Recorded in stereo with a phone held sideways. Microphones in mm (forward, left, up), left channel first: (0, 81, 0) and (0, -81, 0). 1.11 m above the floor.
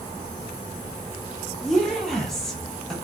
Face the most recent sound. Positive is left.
turn(degrees=5)  # may be behind; listen again after turning